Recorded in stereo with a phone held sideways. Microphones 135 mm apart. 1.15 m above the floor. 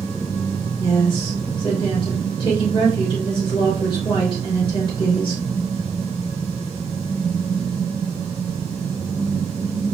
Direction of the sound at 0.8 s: 40° left (ahead or behind).